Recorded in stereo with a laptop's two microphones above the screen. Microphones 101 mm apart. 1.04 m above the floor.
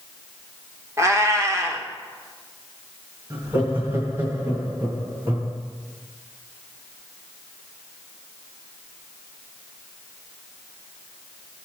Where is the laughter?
45° right (ahead or behind), 1.6 m.